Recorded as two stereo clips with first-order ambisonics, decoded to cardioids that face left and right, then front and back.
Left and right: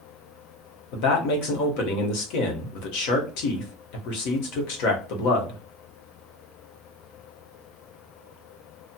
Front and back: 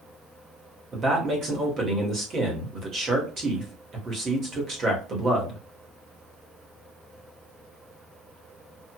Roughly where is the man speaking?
Left.